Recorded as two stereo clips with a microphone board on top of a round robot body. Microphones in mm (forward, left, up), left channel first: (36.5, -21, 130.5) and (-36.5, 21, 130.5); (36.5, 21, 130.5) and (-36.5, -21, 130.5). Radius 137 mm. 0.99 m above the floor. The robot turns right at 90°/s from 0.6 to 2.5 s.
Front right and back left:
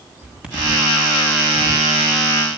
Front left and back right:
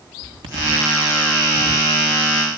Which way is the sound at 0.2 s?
130° right.